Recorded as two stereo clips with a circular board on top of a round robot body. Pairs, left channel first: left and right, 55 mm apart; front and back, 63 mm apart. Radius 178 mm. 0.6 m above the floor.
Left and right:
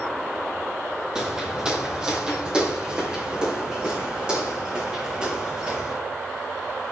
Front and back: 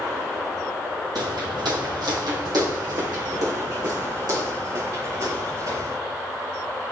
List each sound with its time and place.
1.1 s footsteps: 170° right, 1.5 m; by 6.0 s 165° right, 5 m